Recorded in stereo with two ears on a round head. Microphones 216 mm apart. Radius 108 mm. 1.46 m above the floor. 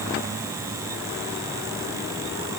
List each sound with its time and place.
Only background noise.